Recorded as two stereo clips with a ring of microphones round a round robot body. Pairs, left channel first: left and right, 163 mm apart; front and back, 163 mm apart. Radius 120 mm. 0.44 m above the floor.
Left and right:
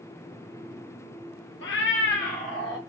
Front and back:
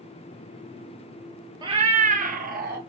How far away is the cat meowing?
About 1.0 m.